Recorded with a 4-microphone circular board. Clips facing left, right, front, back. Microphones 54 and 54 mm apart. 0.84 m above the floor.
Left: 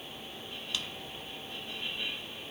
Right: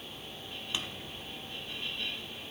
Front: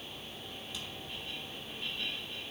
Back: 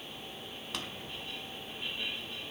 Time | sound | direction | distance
0.7 | a drawer | 155° right | 1.2 m